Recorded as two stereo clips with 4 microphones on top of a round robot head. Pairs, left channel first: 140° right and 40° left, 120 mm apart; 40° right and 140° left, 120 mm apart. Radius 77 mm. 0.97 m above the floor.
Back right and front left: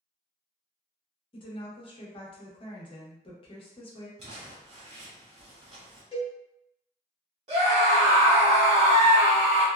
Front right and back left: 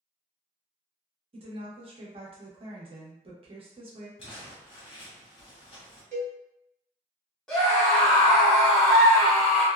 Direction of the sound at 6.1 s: 170° left.